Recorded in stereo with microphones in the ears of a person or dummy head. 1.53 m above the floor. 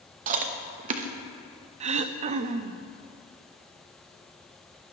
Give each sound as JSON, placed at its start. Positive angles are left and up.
{"t": 0.3, "sound": "chewing", "side_deg": -45, "distance_m": 1.1}
{"t": 1.8, "sound": "throat clearing", "side_deg": -35, "distance_m": 0.5}